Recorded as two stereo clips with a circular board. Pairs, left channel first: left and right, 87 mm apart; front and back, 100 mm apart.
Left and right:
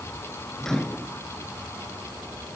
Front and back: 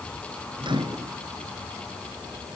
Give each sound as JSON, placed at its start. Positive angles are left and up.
{"t": 0.6, "sound": "a microwave", "azimuth_deg": 175, "distance_m": 1.7}